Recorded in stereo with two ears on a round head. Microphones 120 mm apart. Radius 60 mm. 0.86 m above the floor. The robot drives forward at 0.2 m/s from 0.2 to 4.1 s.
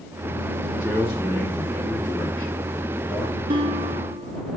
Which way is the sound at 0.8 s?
5° right (ahead or behind).